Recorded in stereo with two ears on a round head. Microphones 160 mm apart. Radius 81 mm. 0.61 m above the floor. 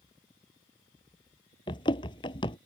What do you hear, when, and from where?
1.7 s running footsteps: 30° left (ahead or behind)